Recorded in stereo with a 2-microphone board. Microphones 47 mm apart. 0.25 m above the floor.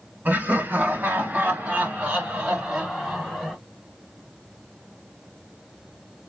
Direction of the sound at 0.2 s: 45° right (ahead or behind).